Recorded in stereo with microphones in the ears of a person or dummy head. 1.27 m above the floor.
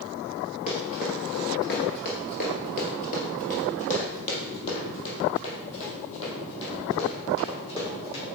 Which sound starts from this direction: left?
Running footsteps, at 0.7 s.